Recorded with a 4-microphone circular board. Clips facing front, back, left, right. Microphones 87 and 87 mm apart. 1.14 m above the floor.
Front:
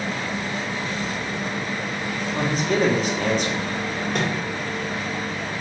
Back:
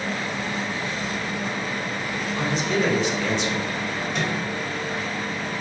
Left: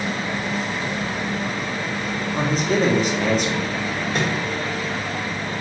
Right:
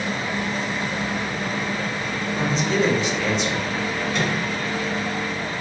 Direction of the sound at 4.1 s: 40° left.